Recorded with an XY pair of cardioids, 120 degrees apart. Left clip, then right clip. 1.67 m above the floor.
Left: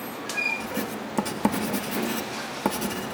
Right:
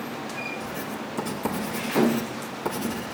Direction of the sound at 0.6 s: 40° left.